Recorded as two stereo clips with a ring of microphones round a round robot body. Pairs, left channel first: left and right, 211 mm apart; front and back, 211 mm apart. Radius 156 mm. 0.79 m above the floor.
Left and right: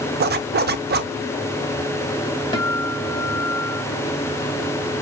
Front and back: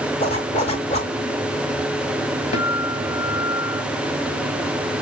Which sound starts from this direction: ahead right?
A zipper, at 0.2 s.